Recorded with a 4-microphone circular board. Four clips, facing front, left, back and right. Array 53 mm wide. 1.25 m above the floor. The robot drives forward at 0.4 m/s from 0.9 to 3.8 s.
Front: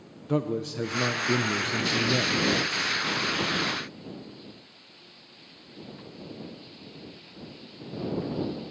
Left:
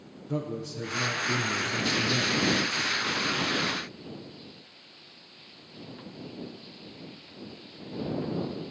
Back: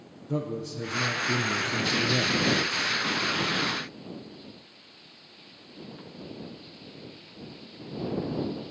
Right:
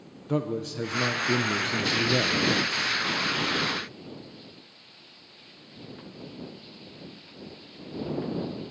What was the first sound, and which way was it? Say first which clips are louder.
A man speaking: right 5 dB, front 4 dB; 35° right.